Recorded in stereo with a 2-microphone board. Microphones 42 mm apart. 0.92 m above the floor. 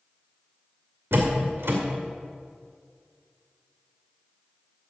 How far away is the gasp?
No gasp in this recording.